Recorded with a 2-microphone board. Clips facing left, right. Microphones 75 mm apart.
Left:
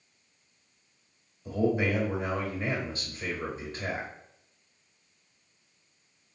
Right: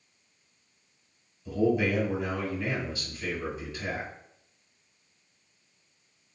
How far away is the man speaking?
About 1.8 m.